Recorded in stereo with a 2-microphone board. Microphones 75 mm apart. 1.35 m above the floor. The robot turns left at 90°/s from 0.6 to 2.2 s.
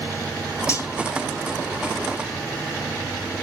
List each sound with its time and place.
0.7 s cutlery clinking: 40° left (ahead or behind), 2.5 m; by 0.9 s 55° left (ahead or behind), 2.5 m